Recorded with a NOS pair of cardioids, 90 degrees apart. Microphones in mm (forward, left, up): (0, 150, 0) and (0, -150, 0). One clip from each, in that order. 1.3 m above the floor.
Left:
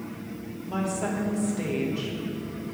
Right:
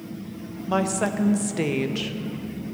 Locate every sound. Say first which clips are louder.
0.7 s a woman speaking: right 6 dB; 55° right, 0.8 m